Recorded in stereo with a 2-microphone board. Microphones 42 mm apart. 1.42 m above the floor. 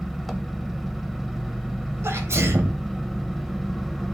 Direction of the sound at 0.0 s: Centre (ahead or behind).